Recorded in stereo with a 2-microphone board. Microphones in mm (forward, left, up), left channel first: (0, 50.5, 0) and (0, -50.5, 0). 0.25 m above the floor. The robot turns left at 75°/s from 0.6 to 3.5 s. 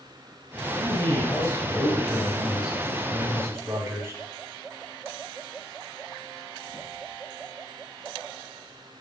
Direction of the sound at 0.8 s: 20° left (ahead or behind).